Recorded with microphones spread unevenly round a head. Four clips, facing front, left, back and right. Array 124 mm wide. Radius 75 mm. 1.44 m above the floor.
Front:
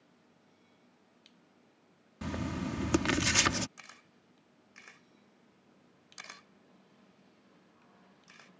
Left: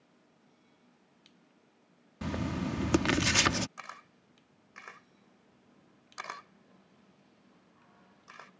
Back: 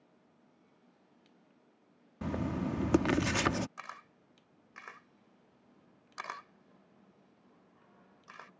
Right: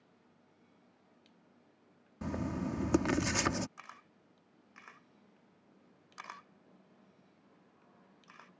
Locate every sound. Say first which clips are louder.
2.2 s writing: left 2 dB, back 2 dB; 155° left
3.8 s a camera shutter: left 6 dB, back 9 dB; 125° left